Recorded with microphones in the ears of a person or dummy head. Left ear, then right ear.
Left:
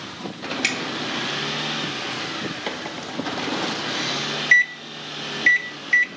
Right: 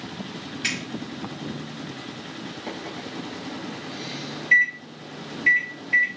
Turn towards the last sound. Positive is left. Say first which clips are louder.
# left 5 dB
turn(degrees=50)  # may be behind; listen again after turning